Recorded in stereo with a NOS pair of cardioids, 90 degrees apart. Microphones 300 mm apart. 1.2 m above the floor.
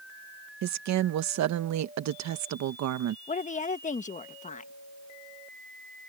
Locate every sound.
0.6 s a woman speaking: 65° right
3.3 s a woman speaking: 25° left